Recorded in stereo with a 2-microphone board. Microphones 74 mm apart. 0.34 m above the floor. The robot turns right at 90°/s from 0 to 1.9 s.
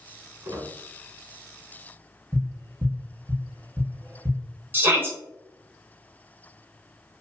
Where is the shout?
30° right (ahead or behind), 1.0 m.